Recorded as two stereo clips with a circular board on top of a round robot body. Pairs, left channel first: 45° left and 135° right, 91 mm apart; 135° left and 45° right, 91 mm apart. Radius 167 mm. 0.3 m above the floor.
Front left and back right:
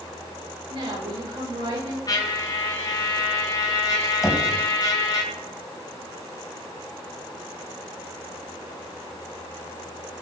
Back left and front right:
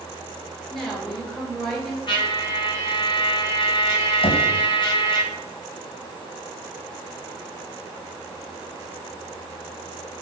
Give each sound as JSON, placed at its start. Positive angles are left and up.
{"t": 0.7, "sound": "a woman speaking", "azimuth_deg": -135, "distance_m": 8.5}
{"t": 2.1, "sound": "a trumpet", "azimuth_deg": 100, "distance_m": 3.5}
{"t": 4.2, "sound": "knocking", "azimuth_deg": 140, "distance_m": 2.5}